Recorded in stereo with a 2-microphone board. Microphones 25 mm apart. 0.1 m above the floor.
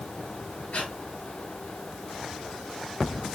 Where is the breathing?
65° left (ahead or behind), 8 m.